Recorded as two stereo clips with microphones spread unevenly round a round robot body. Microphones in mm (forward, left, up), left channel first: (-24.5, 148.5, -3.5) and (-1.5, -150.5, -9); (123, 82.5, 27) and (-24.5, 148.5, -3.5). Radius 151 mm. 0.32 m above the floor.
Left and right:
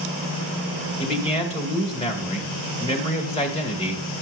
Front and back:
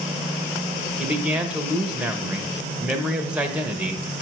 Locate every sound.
1.0 s a man speaking: 125° left, 1.2 m